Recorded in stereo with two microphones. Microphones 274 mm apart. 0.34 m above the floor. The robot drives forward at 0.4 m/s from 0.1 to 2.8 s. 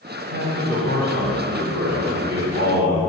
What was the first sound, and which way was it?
A man speaking, 50° right (ahead or behind).